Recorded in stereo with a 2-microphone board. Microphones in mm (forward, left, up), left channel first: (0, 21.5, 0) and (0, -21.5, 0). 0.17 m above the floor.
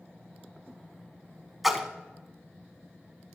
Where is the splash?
Centre (ahead or behind), 1.0 m.